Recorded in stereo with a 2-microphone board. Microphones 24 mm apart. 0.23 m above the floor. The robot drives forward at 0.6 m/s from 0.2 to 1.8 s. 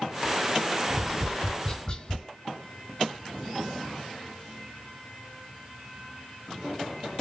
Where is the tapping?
30° left (ahead or behind), 2.5 m; by 2.2 s 35° left (ahead or behind), 2.5 m.